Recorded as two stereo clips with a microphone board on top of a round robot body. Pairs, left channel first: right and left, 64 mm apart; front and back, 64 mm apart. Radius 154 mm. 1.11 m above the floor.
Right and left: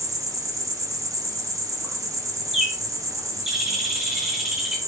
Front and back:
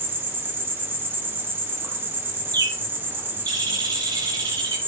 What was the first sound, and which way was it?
An insect, 120° left.